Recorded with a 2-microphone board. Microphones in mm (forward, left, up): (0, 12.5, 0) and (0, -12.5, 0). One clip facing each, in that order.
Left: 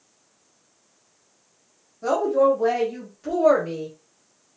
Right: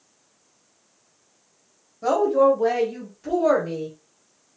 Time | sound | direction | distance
2.0 | a woman speaking | 15° right (ahead or behind) | 0.9 m